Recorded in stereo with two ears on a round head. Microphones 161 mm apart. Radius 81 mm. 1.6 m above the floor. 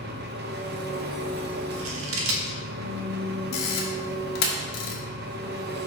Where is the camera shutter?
55° left (ahead or behind), 1.4 m.